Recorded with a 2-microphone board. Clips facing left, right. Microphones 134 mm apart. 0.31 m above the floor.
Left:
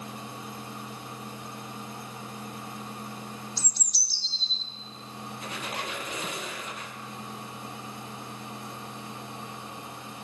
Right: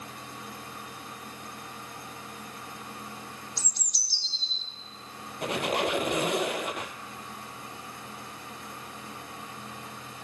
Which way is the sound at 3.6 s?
30° left (ahead or behind).